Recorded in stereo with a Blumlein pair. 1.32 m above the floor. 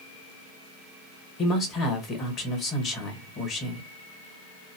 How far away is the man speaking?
About 1.5 m.